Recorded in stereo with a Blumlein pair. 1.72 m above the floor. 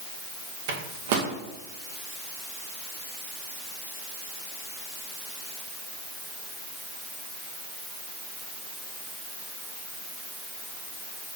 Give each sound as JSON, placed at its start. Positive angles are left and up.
{"t": 0.7, "sound": "a microwave", "azimuth_deg": -55, "distance_m": 1.0}